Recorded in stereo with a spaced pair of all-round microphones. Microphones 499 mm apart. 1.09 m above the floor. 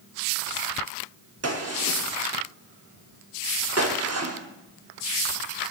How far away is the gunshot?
About 0.8 m.